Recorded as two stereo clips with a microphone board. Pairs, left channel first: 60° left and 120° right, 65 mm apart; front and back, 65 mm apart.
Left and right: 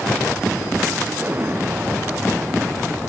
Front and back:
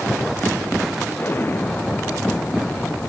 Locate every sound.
1.2 s an explosion: 60° right